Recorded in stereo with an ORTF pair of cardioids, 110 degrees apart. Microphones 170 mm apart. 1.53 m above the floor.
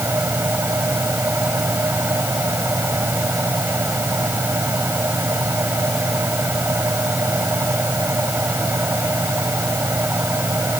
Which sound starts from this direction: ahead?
A fan, at 0.0 s.